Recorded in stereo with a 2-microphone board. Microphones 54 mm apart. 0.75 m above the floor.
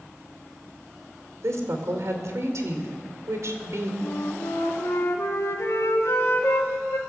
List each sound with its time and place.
1.4 s a woman speaking: 65° right (ahead or behind), 2.5 m
4.0 s a flute: 55° left (ahead or behind), 1.5 m